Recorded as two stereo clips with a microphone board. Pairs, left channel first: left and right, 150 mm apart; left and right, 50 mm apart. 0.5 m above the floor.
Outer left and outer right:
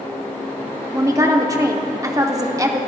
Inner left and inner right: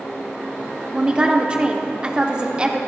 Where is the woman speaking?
20° right (ahead or behind), 0.8 m.